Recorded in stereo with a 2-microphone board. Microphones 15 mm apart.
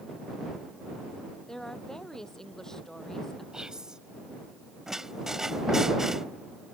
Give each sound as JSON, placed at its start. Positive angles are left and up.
{"t": 1.5, "sound": "a woman speaking", "side_deg": 40}
{"t": 3.5, "sound": "whispering", "side_deg": -60}
{"t": 4.9, "sound": "a squeak", "side_deg": -35}